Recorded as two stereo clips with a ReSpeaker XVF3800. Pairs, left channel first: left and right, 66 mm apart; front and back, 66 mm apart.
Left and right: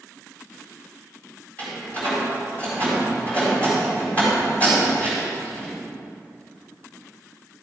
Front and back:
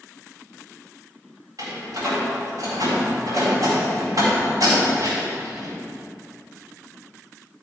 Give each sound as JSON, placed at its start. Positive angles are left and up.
{"t": 1.6, "sound": "a door slam", "azimuth_deg": 155, "distance_m": 4.0}